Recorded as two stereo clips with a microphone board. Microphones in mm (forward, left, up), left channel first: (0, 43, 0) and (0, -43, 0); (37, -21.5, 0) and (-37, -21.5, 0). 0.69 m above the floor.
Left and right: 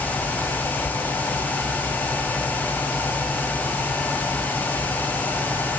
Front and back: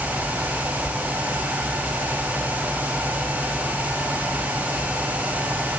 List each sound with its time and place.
Only background noise.